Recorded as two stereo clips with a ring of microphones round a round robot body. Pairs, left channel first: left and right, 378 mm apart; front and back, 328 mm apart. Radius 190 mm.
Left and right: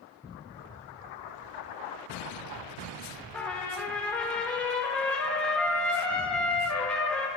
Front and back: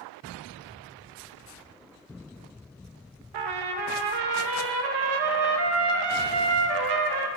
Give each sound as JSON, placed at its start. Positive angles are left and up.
{"t": 3.3, "sound": "a trumpet", "azimuth_deg": 175, "distance_m": 0.6}